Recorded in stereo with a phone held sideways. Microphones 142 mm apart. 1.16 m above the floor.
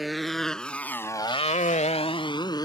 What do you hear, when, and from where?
0.0 s a motorcycle: centre (ahead or behind); by 2.6 s 30° left (ahead or behind)